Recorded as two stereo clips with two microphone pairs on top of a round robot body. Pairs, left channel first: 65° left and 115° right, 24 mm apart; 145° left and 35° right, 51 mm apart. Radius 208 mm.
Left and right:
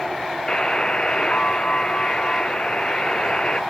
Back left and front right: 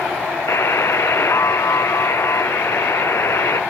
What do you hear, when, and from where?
0.5 s a buzzer: 120° left, 0.9 m